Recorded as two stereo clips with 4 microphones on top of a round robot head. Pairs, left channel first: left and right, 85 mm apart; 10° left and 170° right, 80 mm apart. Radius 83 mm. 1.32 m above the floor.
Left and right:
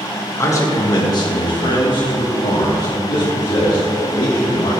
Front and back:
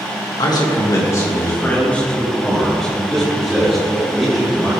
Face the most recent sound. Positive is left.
turn(degrees=115)